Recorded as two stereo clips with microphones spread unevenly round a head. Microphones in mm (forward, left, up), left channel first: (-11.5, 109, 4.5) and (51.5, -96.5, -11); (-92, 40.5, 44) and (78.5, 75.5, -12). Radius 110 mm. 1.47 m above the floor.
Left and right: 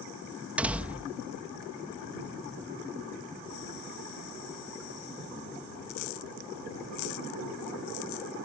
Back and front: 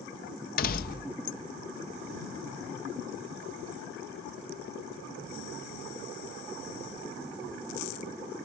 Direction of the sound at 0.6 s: 160° right.